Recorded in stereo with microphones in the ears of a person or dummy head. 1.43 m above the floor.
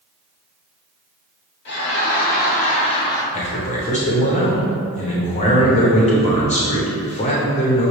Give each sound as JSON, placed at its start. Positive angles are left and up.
{"t": 1.6, "sound": "laughter", "side_deg": 60, "distance_m": 1.5}
{"t": 3.3, "sound": "a man speaking", "side_deg": 35, "distance_m": 1.0}